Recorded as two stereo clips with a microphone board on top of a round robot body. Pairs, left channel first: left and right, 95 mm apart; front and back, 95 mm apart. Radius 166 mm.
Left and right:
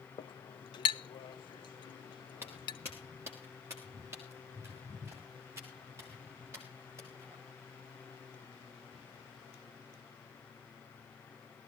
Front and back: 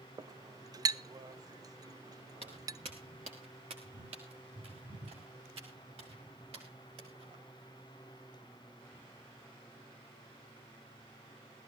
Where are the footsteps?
155° right, 0.9 m.